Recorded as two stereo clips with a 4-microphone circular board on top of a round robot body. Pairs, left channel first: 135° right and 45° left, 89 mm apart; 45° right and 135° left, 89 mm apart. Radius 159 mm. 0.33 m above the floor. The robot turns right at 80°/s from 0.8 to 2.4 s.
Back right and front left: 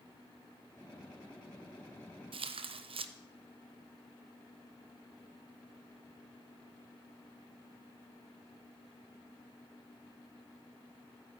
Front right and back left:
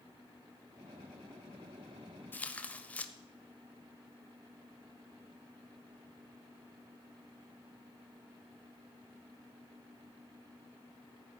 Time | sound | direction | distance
2.3 | tearing paper | 25° left | 0.6 m